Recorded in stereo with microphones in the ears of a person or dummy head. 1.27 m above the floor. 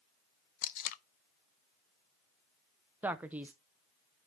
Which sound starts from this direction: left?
Tape being pulled, at 0.6 s.